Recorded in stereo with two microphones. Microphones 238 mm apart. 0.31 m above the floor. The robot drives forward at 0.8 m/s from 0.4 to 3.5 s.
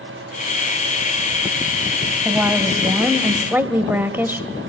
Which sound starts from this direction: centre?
A woman speaking, at 2.2 s.